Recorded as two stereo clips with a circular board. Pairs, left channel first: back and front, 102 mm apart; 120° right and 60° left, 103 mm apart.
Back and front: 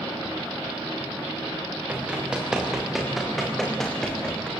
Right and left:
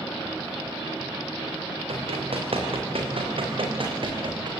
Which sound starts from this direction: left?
Running footsteps, at 1.9 s.